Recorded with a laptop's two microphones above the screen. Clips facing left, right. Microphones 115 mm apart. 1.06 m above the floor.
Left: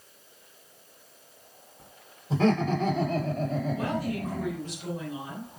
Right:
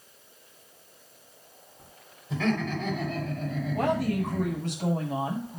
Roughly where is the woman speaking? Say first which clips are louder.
Right 4 dB; right.